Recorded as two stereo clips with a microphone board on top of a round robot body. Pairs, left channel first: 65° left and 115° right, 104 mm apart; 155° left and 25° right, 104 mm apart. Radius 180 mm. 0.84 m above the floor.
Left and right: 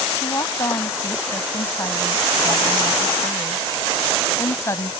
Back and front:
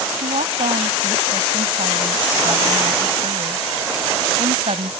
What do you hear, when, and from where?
0.2 s a woman speaking: 5° left